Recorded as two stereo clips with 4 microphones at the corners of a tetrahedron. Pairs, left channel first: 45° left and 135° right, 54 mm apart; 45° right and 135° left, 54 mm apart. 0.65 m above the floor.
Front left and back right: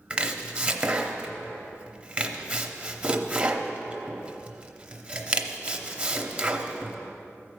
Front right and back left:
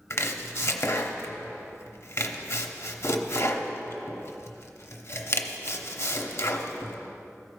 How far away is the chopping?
About 0.7 m.